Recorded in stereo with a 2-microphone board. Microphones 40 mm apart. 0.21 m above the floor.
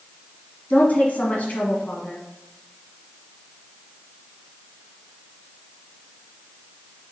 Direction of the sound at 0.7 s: 45° left (ahead or behind).